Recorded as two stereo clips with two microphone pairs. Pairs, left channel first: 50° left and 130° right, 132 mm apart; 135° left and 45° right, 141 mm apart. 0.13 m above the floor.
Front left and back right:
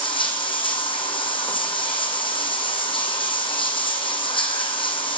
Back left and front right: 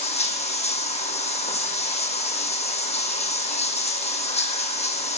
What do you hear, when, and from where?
0.0 s running water: 100° left, 1.1 m